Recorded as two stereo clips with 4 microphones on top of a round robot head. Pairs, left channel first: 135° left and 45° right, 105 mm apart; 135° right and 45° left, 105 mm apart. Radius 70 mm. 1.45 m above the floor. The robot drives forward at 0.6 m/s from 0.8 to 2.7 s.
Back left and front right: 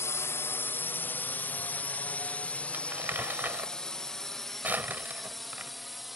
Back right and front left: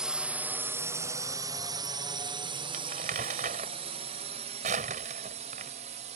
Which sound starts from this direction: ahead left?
Crumpling, at 2.7 s.